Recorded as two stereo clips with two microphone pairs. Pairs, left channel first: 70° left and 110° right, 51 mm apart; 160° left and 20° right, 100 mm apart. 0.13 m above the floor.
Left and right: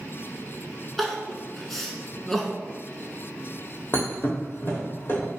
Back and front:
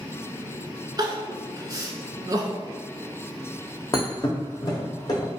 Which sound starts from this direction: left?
A thud, at 3.9 s.